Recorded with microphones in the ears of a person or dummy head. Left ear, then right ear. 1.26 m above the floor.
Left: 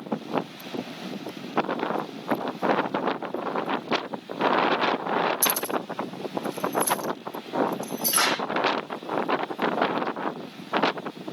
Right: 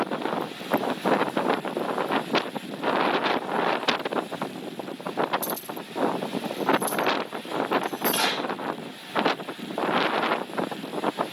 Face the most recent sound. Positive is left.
turn(degrees=65)  # may be behind; listen again after turning